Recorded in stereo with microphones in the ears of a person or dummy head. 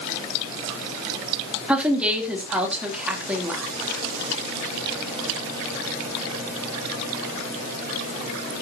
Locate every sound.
1.7 s a woman speaking: 5° right (ahead or behind), 3 m